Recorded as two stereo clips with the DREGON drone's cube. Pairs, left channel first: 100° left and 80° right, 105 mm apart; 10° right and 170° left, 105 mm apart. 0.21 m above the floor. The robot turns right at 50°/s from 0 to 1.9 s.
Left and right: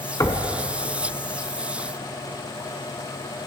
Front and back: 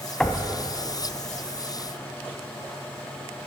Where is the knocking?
65° left, 1.2 m; by 0.5 s 80° left, 1.2 m.